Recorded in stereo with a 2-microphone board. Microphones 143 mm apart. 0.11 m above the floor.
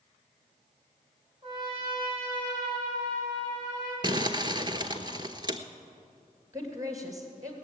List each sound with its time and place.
1.4 s a trumpet: 35° right (ahead or behind), 4.5 m
4.0 s crumpling: 30° right (ahead or behind), 0.8 m
6.5 s a woman speaking: 20° right (ahead or behind), 2.5 m